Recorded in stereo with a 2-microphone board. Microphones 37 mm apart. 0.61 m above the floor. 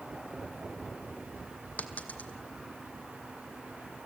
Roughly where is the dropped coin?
Left.